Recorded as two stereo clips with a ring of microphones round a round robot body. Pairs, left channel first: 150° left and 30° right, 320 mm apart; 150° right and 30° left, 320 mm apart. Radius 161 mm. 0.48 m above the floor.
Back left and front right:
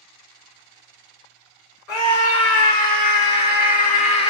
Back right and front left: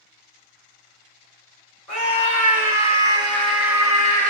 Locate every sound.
1.9 s a scream: 120° left, 2.5 m; by 4.3 s 85° left, 1.7 m